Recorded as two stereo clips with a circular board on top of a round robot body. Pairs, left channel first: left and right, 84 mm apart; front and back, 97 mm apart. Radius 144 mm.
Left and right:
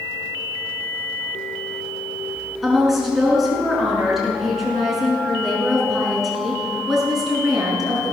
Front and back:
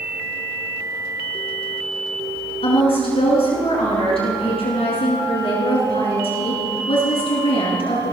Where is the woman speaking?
5° right, 5.5 m.